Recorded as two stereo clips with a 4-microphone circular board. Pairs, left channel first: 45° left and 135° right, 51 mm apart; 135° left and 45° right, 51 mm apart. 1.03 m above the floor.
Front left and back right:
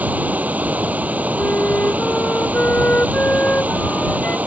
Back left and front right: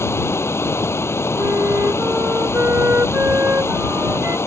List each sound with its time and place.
0.0 s running water: 165° left
1.4 s a flute: 10° right